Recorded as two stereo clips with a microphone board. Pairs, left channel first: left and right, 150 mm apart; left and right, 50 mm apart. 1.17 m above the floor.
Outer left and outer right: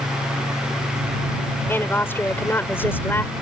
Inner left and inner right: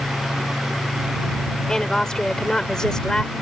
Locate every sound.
1.7 s a woman speaking: 15° left (ahead or behind)